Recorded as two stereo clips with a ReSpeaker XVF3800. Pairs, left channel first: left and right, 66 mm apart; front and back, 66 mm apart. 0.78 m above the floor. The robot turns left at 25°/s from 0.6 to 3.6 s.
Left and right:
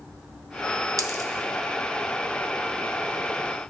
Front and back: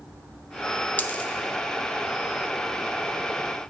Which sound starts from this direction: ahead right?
A dropped coin, at 1.0 s.